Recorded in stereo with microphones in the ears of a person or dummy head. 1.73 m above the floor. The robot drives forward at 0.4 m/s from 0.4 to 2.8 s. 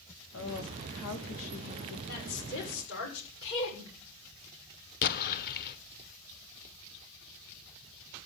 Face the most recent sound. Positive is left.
turn(degrees=55)  # may be behind; listen again after turning